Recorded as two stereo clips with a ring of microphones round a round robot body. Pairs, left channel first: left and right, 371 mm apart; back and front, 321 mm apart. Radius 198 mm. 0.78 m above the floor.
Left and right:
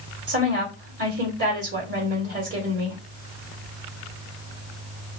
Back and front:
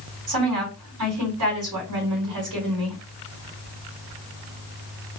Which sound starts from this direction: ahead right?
A woman speaking, at 0.3 s.